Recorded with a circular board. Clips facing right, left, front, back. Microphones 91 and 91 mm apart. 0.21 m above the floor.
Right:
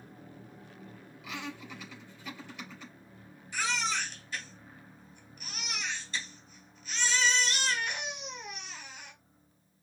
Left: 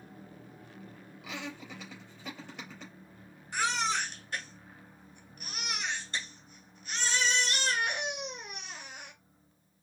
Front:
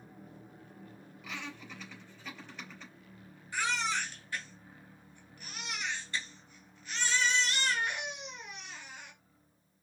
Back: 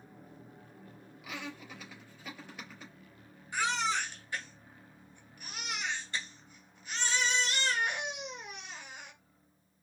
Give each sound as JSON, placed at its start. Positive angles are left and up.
{"t": 1.2, "sound": "laughter", "azimuth_deg": 100, "distance_m": 3.5}
{"t": 3.5, "sound": "a baby crying", "azimuth_deg": 110, "distance_m": 2.0}